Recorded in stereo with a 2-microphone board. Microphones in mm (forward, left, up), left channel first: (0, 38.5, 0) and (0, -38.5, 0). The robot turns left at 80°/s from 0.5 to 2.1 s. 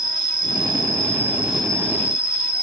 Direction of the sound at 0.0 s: 90° right.